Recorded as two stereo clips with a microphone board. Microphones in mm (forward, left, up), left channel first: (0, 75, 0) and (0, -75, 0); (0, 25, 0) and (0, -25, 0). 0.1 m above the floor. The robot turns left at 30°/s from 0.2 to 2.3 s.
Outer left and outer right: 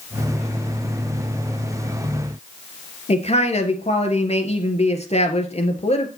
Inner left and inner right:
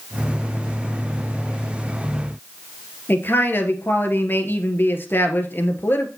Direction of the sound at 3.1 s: 45° left (ahead or behind).